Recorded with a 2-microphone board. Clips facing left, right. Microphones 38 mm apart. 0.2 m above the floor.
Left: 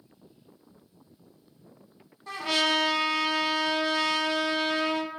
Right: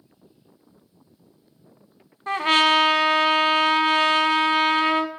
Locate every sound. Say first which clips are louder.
2.3 s a trumpet: right 8 dB; 50° right (ahead or behind), 0.6 m